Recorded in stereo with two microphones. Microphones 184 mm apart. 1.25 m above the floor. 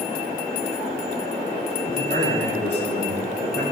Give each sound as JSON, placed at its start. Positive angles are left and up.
{"t": 1.9, "sound": "a man speaking", "side_deg": -75, "distance_m": 5.0}